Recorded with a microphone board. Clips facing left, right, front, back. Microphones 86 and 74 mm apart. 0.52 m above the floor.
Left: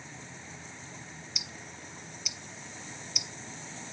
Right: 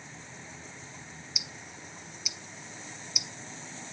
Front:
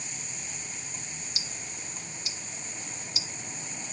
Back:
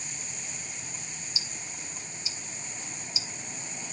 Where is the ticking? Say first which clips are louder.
Even, even; 5° right, 0.5 m.